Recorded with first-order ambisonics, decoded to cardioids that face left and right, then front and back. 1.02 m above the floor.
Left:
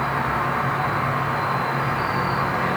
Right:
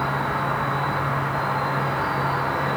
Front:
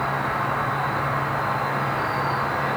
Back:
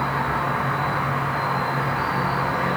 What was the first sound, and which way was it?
An insect, 130° left.